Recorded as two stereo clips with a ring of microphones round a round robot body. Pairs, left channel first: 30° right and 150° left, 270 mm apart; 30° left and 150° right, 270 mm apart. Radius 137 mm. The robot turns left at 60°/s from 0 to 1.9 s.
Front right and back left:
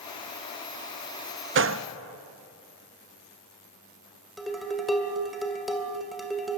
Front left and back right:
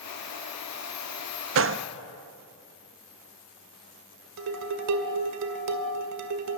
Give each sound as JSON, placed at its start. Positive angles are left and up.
{"t": 1.6, "sound": "a gunshot", "azimuth_deg": -175, "distance_m": 0.5}
{"t": 4.4, "sound": "dishes clattering", "azimuth_deg": -120, "distance_m": 2.0}